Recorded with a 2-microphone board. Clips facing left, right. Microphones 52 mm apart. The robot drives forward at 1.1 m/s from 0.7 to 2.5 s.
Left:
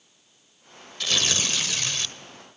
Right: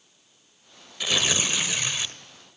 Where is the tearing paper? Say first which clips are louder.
Right 1 dB; 15° right (ahead or behind), 1.4 m.